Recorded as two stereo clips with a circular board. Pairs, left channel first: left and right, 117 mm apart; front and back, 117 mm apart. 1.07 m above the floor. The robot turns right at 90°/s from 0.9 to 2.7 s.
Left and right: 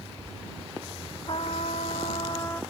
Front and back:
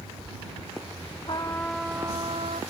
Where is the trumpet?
45° left; by 2.6 s 165° left.